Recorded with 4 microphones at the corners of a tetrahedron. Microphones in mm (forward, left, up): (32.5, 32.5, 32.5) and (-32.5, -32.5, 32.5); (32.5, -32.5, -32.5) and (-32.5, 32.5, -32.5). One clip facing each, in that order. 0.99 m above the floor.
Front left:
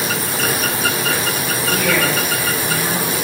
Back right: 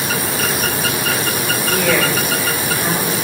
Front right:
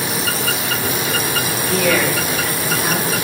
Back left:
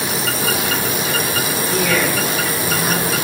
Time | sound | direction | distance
1.7 | a woman speaking | 60° right | 5 m